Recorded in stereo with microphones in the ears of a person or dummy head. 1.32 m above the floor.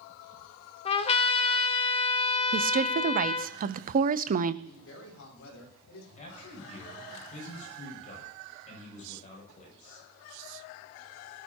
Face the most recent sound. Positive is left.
turn(degrees=40)  # may be behind; listen again after turning